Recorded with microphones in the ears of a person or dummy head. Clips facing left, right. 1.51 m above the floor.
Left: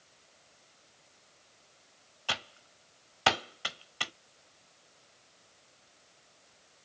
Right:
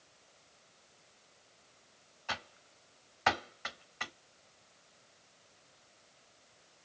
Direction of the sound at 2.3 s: 40° left (ahead or behind).